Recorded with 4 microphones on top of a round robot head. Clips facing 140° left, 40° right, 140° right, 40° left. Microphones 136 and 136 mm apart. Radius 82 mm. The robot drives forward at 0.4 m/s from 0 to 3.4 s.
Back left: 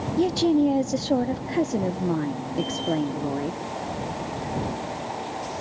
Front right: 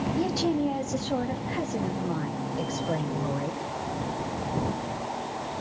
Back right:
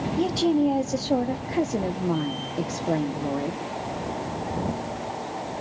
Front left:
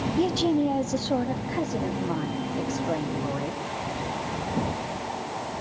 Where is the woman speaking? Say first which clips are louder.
Back left 8 dB, back right 2 dB; 125° left, 0.8 m; by 3.6 s 170° left, 1.6 m.